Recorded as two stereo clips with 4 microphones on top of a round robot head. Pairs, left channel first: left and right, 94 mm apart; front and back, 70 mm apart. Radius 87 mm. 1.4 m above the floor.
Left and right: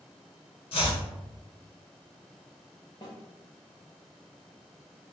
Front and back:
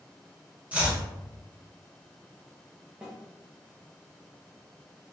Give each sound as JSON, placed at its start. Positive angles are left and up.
{"t": 0.7, "sound": "chopping", "azimuth_deg": 110, "distance_m": 1.3}
{"t": 3.0, "sound": "a snare drum", "azimuth_deg": 110, "distance_m": 0.6}